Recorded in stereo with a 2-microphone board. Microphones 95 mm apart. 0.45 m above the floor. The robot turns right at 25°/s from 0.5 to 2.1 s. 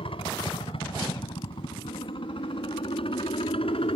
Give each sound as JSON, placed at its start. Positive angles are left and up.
{"t": 0.0, "sound": "a helicopter", "side_deg": 70}